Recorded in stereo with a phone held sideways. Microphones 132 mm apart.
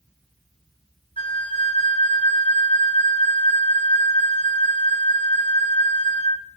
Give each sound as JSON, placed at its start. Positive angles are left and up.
{"t": 1.2, "sound": "a flute", "side_deg": 40, "distance_m": 1.0}